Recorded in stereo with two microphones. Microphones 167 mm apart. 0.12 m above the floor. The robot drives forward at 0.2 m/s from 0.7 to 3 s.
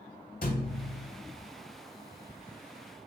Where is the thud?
60° left (ahead or behind), 0.7 m; by 1.1 s 65° left (ahead or behind), 0.7 m.